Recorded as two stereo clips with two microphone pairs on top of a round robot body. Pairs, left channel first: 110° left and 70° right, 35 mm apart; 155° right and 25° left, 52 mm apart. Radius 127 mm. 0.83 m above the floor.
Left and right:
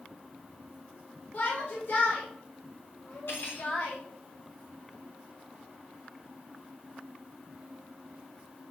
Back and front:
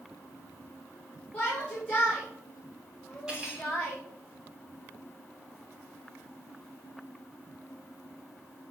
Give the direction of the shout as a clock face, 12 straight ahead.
7 o'clock.